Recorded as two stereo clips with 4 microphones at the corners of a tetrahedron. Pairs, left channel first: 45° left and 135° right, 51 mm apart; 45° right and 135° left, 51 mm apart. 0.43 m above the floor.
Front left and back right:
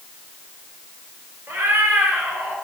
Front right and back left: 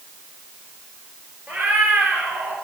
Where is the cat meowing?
165° right, 1.8 m; by 2.6 s 175° left, 2 m.